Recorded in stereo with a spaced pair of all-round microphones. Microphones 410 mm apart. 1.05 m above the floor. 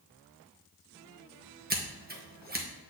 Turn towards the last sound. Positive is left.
turn(degrees=-20)  # may be behind; listen again after turning